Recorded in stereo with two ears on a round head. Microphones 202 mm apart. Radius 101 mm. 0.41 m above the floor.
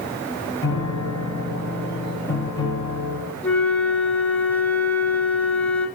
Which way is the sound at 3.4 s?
10° left (ahead or behind).